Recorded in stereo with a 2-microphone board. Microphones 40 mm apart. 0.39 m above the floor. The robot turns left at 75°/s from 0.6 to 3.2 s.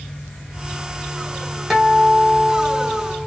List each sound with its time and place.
1.7 s a guitar: 5° right (ahead or behind), 1.1 m; by 3.3 s 25° left (ahead or behind), 1.1 m